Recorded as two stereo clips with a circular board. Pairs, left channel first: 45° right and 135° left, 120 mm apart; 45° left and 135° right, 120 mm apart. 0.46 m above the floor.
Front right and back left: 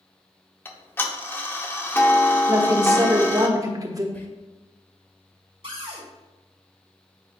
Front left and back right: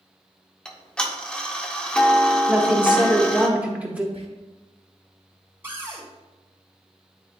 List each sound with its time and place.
0.7 s ticking: 20° right, 0.7 m
2.5 s a woman speaking: 155° left, 1.1 m
4.1 s whispering: 115° right, 1.3 m
5.6 s a cupboard door: 160° left, 2 m